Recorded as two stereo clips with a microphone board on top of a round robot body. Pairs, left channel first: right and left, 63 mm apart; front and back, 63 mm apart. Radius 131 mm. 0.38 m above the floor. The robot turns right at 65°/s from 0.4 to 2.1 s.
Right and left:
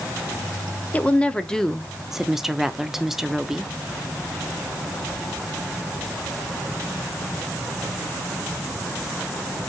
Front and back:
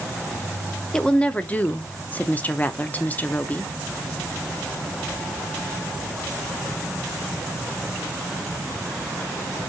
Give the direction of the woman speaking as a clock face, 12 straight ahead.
2 o'clock.